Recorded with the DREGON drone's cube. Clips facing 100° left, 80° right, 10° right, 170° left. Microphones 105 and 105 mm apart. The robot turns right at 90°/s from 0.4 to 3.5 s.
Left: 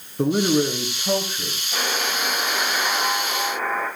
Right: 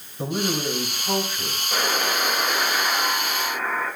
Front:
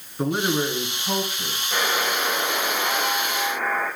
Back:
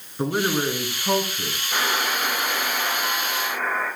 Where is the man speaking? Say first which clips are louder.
Left 7 dB, even; 80° left, 3 m; by 1.6 s 170° right, 3 m.